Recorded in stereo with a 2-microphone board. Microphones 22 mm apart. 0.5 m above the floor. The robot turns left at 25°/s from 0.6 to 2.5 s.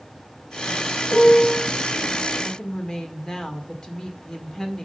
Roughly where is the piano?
Left.